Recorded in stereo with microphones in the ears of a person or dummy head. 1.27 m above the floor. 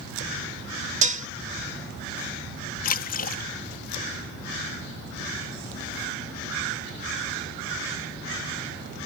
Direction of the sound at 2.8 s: 45° left (ahead or behind).